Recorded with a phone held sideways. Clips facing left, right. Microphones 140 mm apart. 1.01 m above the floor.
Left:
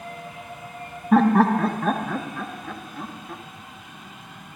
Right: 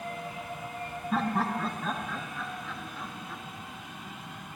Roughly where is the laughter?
Left.